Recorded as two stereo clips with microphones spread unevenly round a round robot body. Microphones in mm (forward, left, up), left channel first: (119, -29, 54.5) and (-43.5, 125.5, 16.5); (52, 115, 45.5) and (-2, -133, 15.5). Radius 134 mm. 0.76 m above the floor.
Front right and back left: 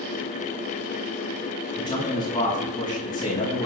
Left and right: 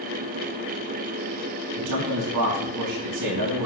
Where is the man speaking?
120° right, 6.5 m.